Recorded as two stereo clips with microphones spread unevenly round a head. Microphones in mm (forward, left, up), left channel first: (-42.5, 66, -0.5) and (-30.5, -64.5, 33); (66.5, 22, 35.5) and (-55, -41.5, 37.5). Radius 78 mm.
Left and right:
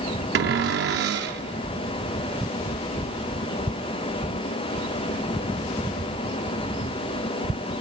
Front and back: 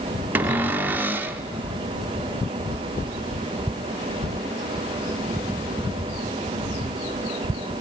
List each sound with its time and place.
0.3 s a cupboard door: 75° right, 0.8 m